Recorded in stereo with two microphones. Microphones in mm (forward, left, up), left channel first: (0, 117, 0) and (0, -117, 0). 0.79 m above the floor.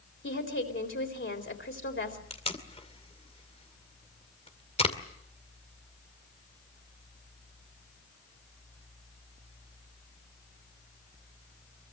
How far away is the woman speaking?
About 4 m.